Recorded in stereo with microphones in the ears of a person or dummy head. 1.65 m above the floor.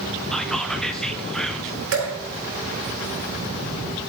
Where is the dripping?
80° right, 4 m.